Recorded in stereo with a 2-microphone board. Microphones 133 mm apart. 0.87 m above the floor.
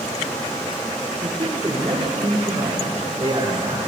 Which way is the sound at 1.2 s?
35° right (ahead or behind).